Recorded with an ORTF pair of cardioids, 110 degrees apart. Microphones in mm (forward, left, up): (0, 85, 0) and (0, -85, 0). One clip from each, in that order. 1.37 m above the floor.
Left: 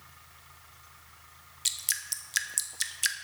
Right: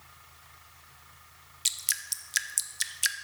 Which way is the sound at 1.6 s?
10° right.